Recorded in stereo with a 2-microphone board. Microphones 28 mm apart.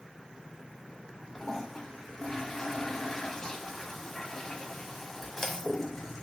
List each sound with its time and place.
1.4 s a toilet flushing: 15° left (ahead or behind), 0.6 m